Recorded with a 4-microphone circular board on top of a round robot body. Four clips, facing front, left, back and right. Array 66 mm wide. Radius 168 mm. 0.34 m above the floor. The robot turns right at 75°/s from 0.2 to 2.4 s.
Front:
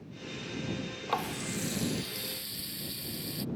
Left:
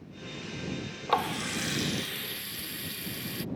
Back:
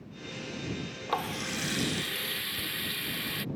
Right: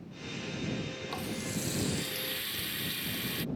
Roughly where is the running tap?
Left.